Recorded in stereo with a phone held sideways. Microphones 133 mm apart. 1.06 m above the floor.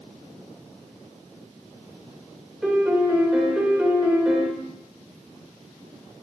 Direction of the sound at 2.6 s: 5° right (ahead or behind).